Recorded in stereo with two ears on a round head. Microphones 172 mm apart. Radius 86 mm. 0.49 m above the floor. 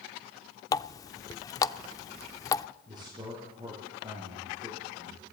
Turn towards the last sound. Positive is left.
turn(degrees=-20)  # may be behind; listen again after turning